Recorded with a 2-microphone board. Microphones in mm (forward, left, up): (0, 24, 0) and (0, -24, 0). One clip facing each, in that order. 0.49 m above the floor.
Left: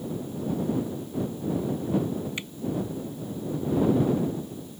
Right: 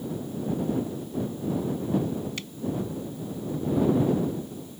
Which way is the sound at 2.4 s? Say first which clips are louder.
Left 2 dB; 20° left (ahead or behind).